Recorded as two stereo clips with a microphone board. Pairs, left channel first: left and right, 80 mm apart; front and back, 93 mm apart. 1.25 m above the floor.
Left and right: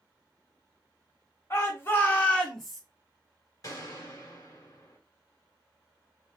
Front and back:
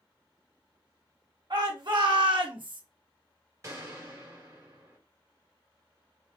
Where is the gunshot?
130° left, 1.7 m.